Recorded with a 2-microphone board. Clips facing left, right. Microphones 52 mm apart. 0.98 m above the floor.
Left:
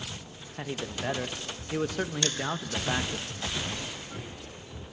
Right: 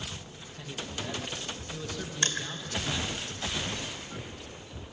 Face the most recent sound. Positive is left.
turn(degrees=-40)  # may be behind; listen again after turning